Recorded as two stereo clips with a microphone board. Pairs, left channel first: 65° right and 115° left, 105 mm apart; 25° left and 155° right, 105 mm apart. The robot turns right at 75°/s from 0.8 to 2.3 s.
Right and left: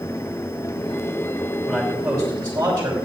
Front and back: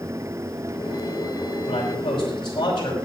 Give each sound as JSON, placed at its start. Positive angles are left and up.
{"t": 1.7, "sound": "a man speaking", "azimuth_deg": 20, "distance_m": 5.0}